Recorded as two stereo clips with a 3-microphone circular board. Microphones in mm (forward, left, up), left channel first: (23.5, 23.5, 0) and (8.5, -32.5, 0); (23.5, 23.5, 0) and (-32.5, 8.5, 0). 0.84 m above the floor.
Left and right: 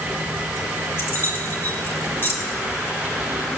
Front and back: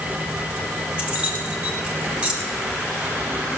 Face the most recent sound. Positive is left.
turn(degrees=125)